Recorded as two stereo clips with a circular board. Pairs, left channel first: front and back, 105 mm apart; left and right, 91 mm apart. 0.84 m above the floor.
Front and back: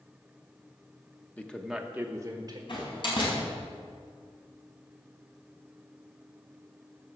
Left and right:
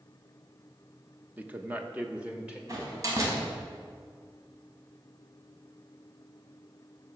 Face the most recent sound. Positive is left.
turn(degrees=-40)